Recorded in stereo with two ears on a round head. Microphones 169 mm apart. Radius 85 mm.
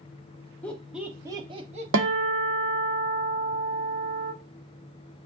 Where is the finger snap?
I don't hear a finger snap.